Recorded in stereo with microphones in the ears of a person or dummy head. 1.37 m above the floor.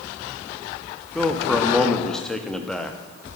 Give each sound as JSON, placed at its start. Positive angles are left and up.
{"t": 1.1, "sound": "a man speaking", "side_deg": 5, "distance_m": 0.7}